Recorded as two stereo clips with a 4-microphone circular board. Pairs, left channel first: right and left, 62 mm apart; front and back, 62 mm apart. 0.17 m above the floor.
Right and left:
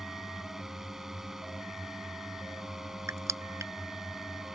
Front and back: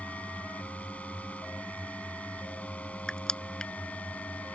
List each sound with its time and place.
0.0 s a drone: 15° left
3.1 s crushing: 75° left